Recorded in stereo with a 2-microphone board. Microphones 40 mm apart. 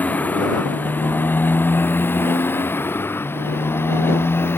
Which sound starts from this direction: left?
A motorcycle, at 0.0 s.